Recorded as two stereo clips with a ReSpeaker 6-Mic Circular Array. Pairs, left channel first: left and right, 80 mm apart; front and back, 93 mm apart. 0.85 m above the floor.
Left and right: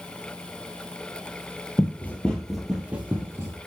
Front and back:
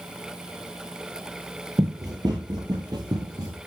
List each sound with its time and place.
1.8 s running footsteps: 145° left, 1.3 m; by 3.6 s 140° right, 1.5 m